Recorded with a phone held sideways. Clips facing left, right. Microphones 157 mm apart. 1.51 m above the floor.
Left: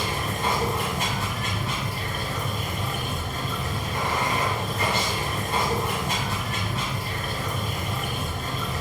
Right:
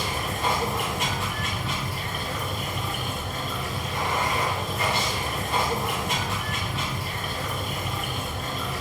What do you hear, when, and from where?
0.0 s running water: 35° left (ahead or behind), 1.8 m